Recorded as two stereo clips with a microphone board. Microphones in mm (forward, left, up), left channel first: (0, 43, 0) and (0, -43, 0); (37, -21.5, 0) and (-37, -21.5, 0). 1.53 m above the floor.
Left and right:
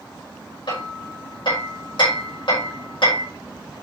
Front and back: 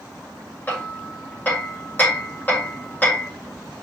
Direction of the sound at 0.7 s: 70° left.